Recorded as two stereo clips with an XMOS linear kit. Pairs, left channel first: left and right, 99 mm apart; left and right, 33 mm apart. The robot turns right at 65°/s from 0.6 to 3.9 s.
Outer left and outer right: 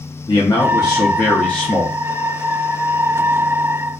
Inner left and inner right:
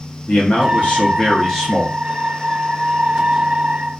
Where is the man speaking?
100° left, 0.7 m; by 2.0 s 170° right, 0.7 m.